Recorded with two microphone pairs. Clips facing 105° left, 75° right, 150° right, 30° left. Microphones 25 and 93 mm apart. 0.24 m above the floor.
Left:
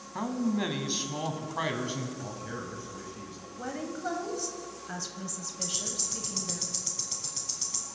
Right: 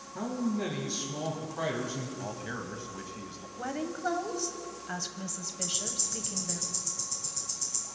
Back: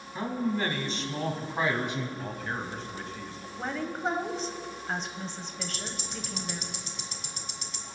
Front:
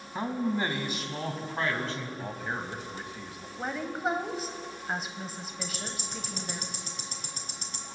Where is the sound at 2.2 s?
35° right, 1.4 m.